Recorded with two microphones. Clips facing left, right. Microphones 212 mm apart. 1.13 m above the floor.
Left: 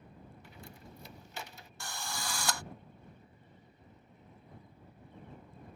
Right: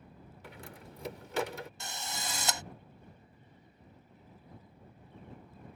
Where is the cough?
I don't hear a cough.